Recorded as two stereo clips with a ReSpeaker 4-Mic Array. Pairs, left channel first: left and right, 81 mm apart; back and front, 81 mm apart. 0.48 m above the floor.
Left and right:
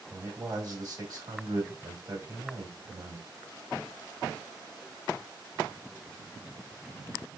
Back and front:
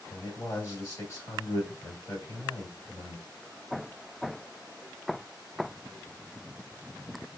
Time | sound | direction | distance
0.1 | a man speaking | 135° right | 2.5 m